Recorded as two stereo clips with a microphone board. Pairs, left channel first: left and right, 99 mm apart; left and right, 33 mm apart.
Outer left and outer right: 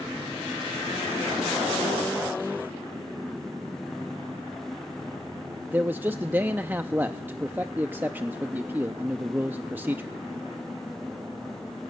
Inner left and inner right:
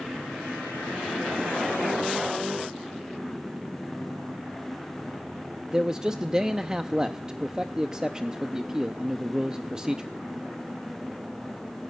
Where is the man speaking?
20° right (ahead or behind), 0.6 m.